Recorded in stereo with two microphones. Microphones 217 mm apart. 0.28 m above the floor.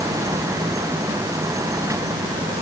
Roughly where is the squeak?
I don't hear a squeak.